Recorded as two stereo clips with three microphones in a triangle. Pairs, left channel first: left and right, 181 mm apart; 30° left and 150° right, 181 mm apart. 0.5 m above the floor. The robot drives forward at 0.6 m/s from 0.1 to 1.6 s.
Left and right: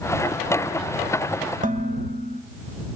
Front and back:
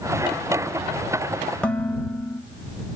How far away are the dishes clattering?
About 1.5 m.